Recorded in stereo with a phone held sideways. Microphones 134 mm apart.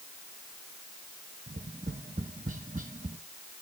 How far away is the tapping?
About 1.5 m.